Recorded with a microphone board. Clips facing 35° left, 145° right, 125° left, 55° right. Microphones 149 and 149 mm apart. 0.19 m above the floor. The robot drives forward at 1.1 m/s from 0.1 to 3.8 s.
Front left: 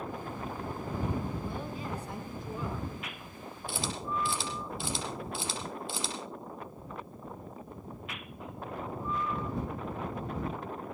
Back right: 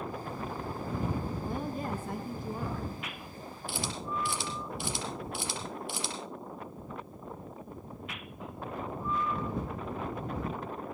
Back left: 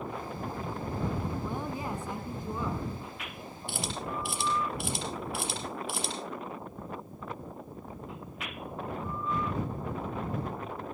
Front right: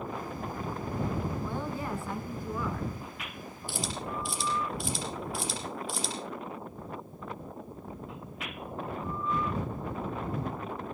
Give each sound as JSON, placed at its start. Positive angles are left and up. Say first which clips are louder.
{"t": 1.4, "sound": "a woman speaking", "louder": "back right 3 dB, even", "azimuth_deg": -165, "distance_m": 2.0}
{"t": 3.7, "sound": "a camera shutter", "louder": "front left 1 dB, even", "azimuth_deg": 100, "distance_m": 5.0}